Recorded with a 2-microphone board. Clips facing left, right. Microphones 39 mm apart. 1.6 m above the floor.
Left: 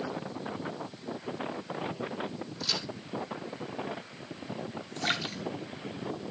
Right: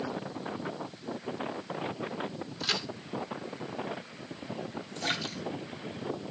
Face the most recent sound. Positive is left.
turn(degrees=20)  # may be behind; listen again after turning